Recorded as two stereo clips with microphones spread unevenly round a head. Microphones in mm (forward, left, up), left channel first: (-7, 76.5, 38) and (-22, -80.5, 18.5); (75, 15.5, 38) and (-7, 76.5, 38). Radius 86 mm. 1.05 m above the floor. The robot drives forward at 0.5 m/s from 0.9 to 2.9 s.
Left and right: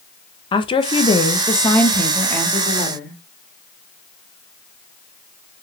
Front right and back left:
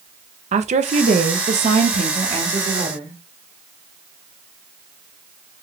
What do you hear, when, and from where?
0.5 s a woman speaking: 150° left, 0.7 m; by 3.1 s 165° left, 1.6 m